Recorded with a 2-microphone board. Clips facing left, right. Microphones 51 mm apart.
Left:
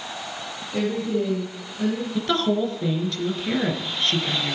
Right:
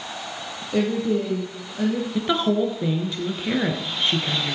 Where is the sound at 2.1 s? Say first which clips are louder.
Right 1 dB; 15° right (ahead or behind), 2.0 m.